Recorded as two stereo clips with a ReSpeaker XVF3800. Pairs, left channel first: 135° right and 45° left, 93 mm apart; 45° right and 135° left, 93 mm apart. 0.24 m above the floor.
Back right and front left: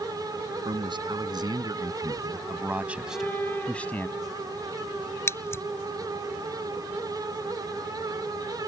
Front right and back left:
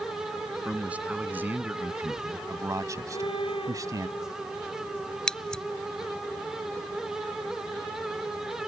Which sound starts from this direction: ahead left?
A man speaking, at 0.7 s.